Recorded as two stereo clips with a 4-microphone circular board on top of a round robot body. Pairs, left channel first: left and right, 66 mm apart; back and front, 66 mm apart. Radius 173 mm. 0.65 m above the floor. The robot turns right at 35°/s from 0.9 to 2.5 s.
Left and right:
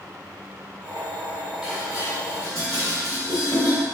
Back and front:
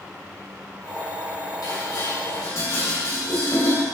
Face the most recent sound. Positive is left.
turn(degrees=-135)